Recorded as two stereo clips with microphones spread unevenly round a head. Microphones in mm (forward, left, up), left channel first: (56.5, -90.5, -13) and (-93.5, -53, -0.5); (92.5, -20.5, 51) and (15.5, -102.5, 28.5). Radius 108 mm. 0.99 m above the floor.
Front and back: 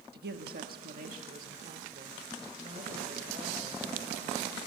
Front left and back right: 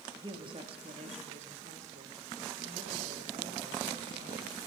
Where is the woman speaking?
170° left, 1.6 m; by 4.6 s 145° right, 7 m.